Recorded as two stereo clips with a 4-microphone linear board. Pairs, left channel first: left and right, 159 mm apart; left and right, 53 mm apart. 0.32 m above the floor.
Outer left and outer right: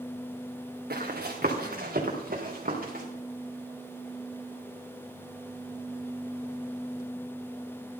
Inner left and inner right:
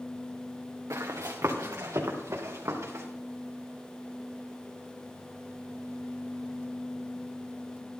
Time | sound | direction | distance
0.9 | running footsteps | 70° right (ahead or behind) | 2 m